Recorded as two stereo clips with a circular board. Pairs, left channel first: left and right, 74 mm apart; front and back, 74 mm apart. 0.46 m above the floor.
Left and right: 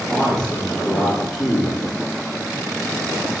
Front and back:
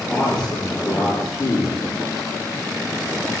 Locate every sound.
0.1 s a man speaking: 10° left, 6.5 m